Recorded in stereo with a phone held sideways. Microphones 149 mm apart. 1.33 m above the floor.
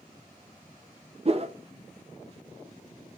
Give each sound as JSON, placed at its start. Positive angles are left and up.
{"t": 1.2, "sound": "a whoosh", "side_deg": -45, "distance_m": 0.5}